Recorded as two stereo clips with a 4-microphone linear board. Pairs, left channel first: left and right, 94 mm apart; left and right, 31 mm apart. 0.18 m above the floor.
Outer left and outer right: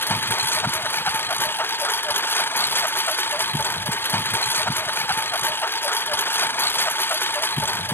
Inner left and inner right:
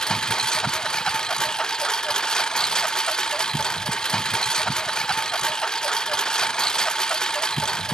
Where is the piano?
I don't hear a piano.